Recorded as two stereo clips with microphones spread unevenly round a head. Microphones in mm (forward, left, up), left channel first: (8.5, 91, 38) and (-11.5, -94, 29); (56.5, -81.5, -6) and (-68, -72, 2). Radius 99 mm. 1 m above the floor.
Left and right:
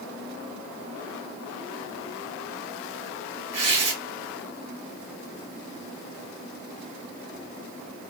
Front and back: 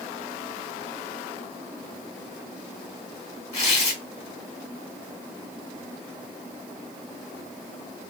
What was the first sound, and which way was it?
Tearing paper, 35° right.